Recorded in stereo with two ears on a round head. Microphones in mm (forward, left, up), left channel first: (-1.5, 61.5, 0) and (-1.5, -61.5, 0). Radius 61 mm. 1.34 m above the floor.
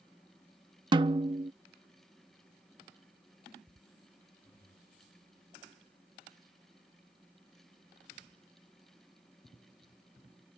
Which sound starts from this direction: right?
A snare drum, at 0.9 s.